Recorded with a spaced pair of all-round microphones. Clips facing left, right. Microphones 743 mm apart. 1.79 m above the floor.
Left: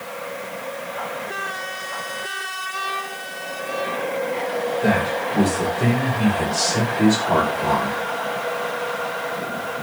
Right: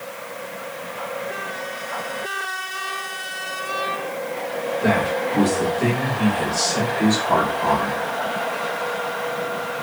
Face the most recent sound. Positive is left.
turn(degrees=60)  # may be behind; listen again after turning